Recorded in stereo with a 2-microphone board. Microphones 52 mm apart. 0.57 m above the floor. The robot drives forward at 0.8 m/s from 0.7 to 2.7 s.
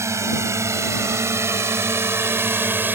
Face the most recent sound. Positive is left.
turn(degrees=-40)  # may be behind; listen again after turning